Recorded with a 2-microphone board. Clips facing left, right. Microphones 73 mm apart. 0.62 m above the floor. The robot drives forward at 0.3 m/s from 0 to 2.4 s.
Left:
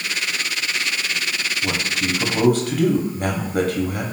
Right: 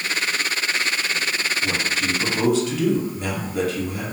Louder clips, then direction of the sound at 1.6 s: Left 2 dB; 55° left (ahead or behind).